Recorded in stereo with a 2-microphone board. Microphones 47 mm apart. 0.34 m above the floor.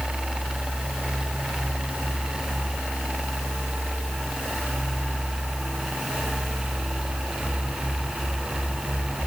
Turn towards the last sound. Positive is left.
No sound to turn to.